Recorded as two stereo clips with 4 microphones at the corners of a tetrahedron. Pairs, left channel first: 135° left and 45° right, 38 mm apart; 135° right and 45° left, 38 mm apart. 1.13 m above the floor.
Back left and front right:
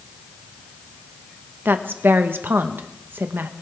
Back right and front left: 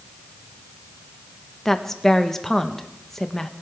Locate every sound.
1.6 s a woman speaking: 55° right, 1.0 m